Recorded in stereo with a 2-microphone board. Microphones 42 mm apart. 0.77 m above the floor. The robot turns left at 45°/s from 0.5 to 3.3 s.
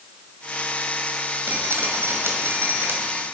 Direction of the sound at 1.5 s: 60° right.